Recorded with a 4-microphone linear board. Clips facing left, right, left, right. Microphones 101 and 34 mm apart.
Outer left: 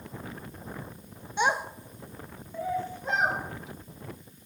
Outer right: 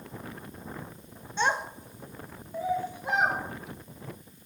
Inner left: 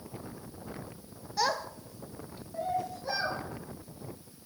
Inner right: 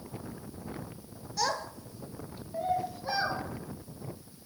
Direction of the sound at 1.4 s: 15° left (ahead or behind).